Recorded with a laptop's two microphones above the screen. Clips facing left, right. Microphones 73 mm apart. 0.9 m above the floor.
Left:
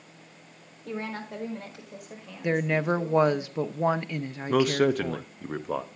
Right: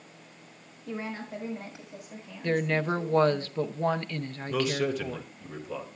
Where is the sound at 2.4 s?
10° left (ahead or behind), 0.7 m.